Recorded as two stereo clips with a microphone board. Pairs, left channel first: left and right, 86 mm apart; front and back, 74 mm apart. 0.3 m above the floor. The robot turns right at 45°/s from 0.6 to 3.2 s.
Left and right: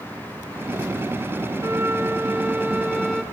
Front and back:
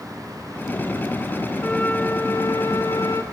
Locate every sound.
1.6 s a flute: 65° right, 1.1 m; by 3.2 s 10° left, 1.1 m